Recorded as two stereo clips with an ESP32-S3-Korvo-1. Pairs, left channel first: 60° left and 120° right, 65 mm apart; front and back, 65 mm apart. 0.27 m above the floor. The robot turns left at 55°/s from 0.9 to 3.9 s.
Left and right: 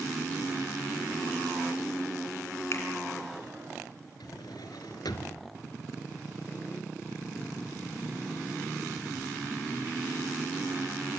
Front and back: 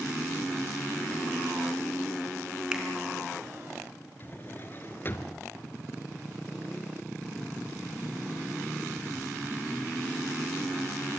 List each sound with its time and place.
2.7 s a finger snap: 105° left, 3 m; by 2.8 s 95° left, 3 m
4.2 s a drawer: 55° left, 1.5 m